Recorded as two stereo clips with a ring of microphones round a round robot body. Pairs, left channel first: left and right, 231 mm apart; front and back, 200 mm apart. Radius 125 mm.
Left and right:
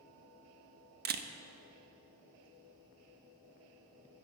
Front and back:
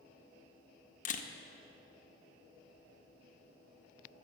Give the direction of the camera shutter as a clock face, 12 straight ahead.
2 o'clock.